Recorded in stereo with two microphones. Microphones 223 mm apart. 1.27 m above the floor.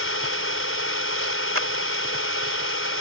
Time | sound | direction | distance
0.0 | an engine running | 75° left (ahead or behind) | ?
1.6 | a clap | 80° right | ?